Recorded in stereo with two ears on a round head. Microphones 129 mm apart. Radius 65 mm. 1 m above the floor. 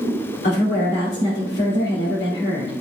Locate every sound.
0.4 s a woman speaking: 75° left (ahead or behind), 2 m